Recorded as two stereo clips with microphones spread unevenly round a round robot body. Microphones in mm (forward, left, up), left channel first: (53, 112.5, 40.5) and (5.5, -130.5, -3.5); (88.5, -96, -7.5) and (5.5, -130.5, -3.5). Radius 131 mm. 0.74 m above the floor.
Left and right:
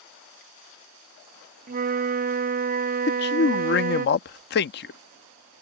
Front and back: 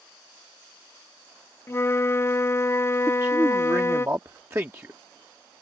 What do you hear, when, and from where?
1.7 s a flute: 45° right
3.1 s a man speaking: 130° left